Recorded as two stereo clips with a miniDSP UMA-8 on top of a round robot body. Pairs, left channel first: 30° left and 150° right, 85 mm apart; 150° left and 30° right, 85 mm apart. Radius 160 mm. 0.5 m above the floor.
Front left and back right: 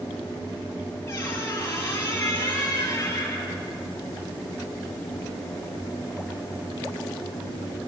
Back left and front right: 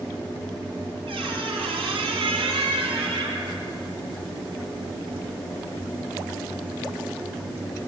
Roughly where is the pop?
I don't hear a pop.